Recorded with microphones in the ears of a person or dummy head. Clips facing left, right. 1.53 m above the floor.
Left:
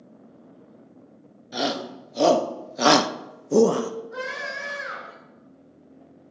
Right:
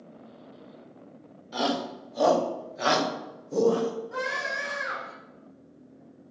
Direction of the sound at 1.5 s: 20° left (ahead or behind).